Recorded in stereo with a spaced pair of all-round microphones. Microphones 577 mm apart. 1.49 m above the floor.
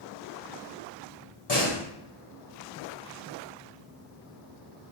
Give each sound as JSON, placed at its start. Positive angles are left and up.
{"t": 1.5, "sound": "a door slam", "side_deg": 45, "distance_m": 2.0}